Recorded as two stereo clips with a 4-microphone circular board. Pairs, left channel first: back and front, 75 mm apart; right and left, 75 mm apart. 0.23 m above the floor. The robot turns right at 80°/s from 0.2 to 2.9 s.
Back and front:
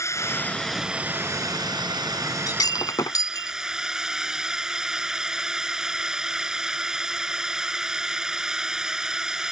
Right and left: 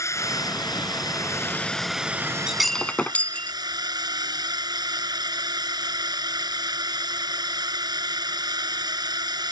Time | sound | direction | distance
0.0 | a drone | 135° right | ?
2.5 | breaking glass | 165° left | ?